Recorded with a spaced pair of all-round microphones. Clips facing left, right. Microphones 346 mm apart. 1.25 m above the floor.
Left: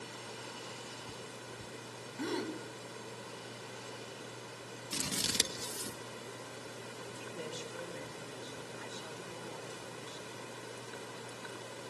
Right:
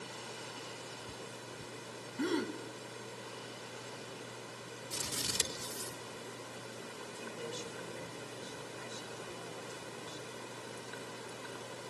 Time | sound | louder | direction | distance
2.2 | a gasp | right 3 dB | 20° right (ahead or behind) | 3 m
4.9 | scissors | left 4 dB | 85° left | 1.7 m
7.0 | a woman speaking | even | 70° left (ahead or behind) | 5 m